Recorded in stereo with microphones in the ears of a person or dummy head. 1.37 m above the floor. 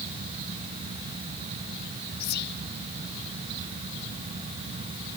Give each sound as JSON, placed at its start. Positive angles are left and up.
{"t": 2.2, "sound": "whispering", "side_deg": 50}